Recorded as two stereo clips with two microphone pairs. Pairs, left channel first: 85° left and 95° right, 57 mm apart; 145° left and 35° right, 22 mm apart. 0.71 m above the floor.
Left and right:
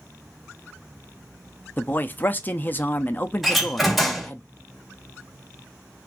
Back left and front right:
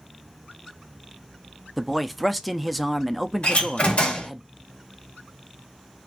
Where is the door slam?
175° left, 1.9 m.